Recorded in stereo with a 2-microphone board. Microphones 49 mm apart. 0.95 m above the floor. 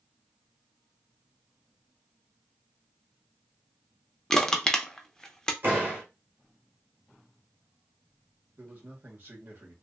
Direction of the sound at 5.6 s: 40° right (ahead or behind).